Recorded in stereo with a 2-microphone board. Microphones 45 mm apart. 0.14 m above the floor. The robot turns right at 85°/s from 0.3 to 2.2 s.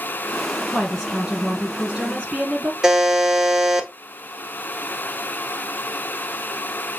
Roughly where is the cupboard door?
I don't hear a cupboard door.